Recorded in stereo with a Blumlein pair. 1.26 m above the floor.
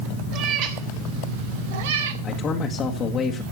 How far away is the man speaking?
About 1.5 m.